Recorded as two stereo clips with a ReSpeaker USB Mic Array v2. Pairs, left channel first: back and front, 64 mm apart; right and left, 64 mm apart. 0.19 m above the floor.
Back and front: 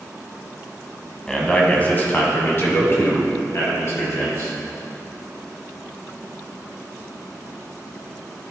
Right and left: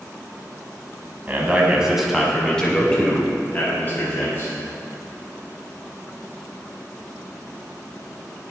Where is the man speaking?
115° left, 1.1 m; by 4.5 s 140° right, 2.5 m.